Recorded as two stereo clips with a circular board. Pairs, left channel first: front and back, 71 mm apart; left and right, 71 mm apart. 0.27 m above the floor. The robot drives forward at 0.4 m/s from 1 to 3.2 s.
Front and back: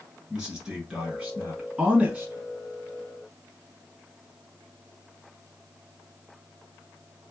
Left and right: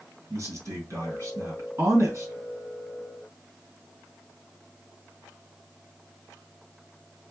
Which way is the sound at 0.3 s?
95° right.